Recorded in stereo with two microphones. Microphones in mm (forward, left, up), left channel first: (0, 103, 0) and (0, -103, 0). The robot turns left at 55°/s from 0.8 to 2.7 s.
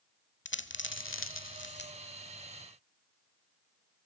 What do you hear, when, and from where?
0.5 s a dropped coin: 65° left (ahead or behind), 1.0 m; by 1.9 s 50° left (ahead or behind), 1.0 m